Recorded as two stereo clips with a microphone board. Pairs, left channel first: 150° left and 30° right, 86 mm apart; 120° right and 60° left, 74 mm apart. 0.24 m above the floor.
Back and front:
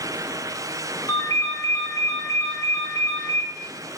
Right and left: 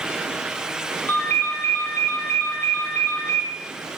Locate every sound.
1.1 s a ringtone: 175° right, 1.6 m